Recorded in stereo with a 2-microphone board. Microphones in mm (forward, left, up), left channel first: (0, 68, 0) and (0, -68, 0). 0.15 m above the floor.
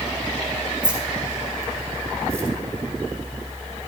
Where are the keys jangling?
10° right (ahead or behind), 5 m; by 2.5 s 10° left (ahead or behind), 3.5 m.